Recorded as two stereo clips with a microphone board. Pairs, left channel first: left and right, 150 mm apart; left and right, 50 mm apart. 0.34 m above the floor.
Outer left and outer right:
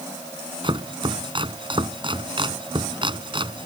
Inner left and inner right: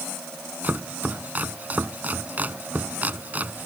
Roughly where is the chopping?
Right.